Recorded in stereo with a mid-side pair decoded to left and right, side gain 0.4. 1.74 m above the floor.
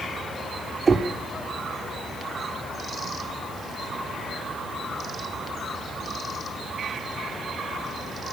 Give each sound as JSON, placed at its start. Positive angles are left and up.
{"t": 0.9, "sound": "knocking", "azimuth_deg": -35, "distance_m": 3.5}